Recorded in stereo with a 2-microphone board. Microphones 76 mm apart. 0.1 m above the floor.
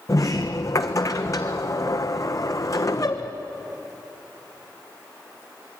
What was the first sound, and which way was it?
A sliding door, 45° left (ahead or behind).